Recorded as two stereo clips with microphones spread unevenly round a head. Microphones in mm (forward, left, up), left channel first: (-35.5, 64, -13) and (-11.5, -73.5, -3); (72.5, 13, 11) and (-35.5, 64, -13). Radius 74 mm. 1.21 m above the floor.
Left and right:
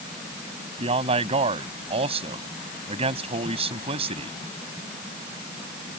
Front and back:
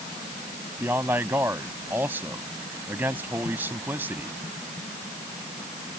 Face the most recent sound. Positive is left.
turn(degrees=-125)